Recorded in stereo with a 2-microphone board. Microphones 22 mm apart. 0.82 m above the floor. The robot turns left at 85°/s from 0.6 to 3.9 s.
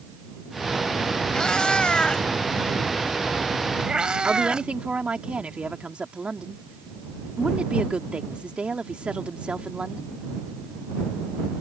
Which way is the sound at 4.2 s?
60° right (ahead or behind).